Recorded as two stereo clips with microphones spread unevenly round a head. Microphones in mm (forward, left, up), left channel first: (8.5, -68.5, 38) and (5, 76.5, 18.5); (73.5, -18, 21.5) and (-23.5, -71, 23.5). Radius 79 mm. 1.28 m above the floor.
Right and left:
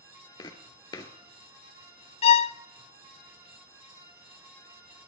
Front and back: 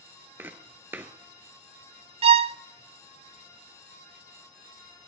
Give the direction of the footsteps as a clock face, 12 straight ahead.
3 o'clock.